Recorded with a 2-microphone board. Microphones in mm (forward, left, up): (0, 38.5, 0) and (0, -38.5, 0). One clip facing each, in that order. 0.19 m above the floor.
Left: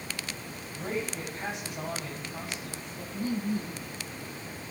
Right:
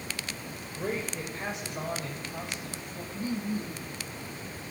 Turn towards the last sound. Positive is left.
turn(degrees=40)  # may be behind; listen again after turning